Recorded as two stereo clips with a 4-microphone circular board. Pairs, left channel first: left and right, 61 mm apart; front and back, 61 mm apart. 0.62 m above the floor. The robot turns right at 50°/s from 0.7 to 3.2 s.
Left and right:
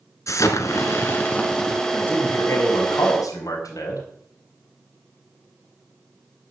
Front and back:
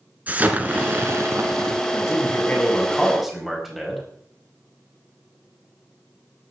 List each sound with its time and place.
0.3 s an explosion: 115° left, 1.7 m; by 1.8 s 175° left, 1.7 m
1.9 s a man speaking: 25° left, 4.5 m; by 4.0 s 90° left, 4.5 m